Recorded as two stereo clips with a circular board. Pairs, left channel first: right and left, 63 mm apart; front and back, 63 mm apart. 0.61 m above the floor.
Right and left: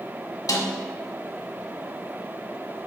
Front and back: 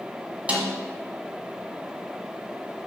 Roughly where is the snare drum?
Right.